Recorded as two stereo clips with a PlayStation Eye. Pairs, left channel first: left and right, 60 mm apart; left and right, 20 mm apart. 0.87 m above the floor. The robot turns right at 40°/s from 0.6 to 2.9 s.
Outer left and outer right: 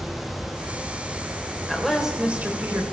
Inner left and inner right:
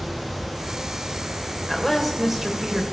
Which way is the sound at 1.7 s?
175° left.